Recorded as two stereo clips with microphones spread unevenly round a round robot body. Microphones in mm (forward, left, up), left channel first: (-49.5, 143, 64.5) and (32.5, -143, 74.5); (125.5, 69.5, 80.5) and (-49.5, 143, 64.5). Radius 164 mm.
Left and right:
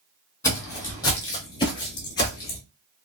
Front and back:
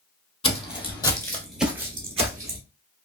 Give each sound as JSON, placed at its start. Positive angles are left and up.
{"t": 0.4, "sound": "footsteps", "azimuth_deg": 25, "distance_m": 1.0}